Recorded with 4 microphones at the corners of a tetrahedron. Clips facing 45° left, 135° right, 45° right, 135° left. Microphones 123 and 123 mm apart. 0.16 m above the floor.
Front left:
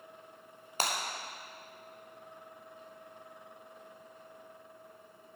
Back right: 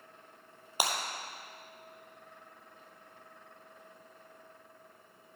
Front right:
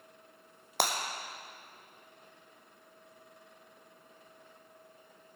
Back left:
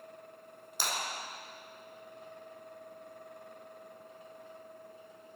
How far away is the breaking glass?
About 1.7 m.